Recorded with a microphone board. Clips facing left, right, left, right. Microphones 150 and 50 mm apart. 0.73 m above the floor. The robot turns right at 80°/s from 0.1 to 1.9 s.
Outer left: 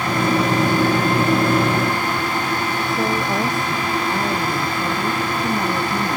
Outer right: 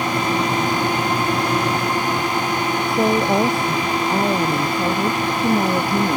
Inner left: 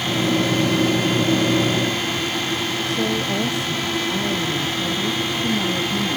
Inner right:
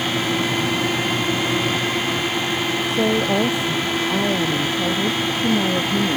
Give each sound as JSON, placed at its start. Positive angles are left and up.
{"t": 2.9, "sound": "a woman speaking", "side_deg": -30}